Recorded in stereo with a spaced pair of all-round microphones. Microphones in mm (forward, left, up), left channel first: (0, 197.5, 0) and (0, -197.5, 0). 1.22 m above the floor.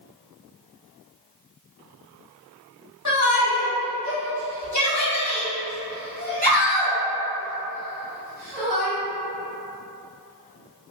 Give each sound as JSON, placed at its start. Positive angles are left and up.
{"t": 3.0, "sound": "a shout", "side_deg": 45, "distance_m": 1.2}